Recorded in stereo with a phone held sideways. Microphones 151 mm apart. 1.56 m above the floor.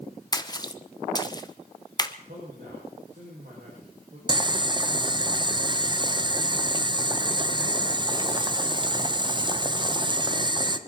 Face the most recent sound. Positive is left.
turn(degrees=-30)  # may be behind; listen again after turning